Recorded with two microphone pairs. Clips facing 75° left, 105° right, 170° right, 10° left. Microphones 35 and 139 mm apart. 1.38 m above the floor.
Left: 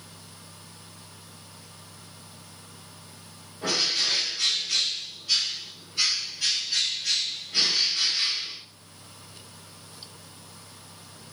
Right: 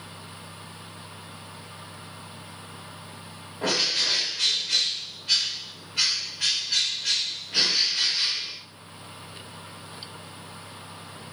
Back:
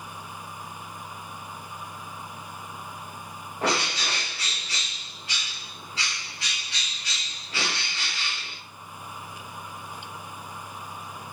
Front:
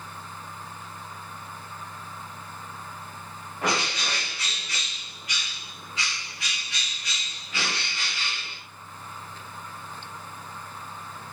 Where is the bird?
115° right, 2 m.